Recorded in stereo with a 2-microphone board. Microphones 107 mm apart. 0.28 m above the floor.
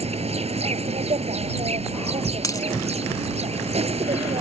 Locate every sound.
0.0 s an insect: 80° right
2.4 s a dropped coin: 35° left (ahead or behind)